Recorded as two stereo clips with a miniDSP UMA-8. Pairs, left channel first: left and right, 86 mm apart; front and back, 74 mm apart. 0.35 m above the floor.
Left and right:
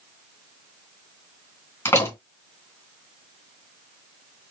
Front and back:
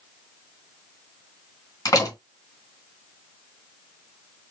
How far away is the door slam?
About 2.0 m.